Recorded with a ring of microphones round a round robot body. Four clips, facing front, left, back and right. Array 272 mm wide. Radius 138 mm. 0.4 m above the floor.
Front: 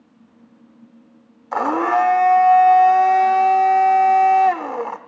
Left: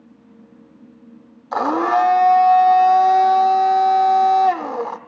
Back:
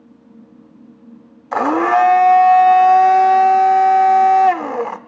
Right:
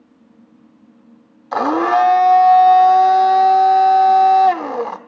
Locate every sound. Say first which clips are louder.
1.5 s a blender: right 2 dB, back 4 dB; 145° right, 1.2 m